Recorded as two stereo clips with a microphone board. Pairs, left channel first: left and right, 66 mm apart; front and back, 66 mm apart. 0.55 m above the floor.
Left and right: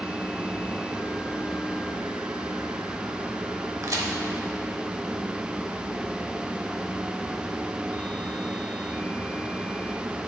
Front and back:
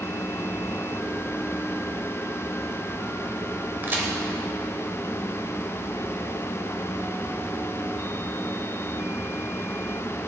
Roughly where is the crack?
Behind right.